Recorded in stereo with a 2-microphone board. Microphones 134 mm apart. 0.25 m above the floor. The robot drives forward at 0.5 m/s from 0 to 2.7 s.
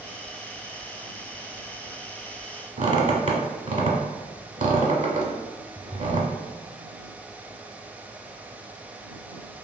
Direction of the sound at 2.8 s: 65° right (ahead or behind).